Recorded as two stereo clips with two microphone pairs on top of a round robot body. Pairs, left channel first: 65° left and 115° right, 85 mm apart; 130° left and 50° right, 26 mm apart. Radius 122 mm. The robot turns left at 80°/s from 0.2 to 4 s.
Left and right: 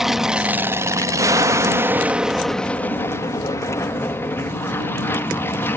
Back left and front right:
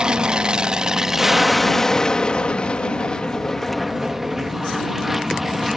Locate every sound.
0.0 s an aircraft: 30° right; by 5.8 s 25° left